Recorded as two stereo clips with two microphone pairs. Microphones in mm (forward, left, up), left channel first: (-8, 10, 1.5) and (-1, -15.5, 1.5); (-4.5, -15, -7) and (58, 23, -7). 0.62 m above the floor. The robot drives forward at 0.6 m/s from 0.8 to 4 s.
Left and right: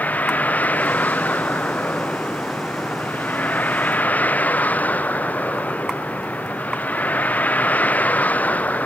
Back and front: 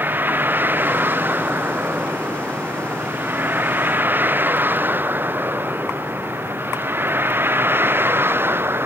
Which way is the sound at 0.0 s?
95° left.